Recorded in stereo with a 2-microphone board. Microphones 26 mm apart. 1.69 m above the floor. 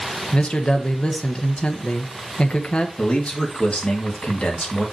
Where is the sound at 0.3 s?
45° left (ahead or behind), 1.2 m.